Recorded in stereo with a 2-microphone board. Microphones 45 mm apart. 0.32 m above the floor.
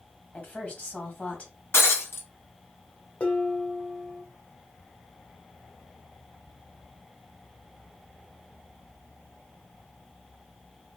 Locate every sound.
0.3 s a woman speaking: 35° left (ahead or behind), 1.8 m
1.7 s breaking glass: 70° left (ahead or behind), 1.4 m
3.2 s dishes clattering: 30° left (ahead or behind), 1.0 m